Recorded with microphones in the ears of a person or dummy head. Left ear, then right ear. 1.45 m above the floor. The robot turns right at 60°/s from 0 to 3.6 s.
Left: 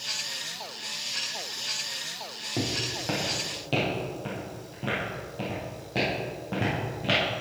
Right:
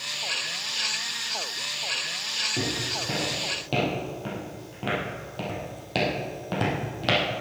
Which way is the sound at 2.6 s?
50° left (ahead or behind).